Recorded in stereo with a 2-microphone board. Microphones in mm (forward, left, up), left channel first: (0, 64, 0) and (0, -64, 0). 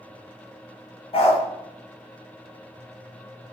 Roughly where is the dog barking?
Left.